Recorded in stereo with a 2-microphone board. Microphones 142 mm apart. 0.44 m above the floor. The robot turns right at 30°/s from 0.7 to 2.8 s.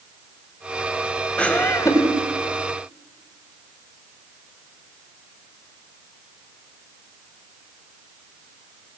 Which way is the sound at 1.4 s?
5° left (ahead or behind).